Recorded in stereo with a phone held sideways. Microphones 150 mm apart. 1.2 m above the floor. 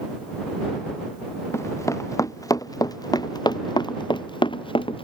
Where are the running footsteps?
20° left (ahead or behind); by 5.0 s 35° left (ahead or behind).